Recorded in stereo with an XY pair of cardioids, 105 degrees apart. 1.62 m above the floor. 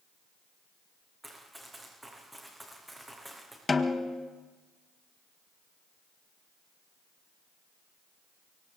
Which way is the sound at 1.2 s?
10° right.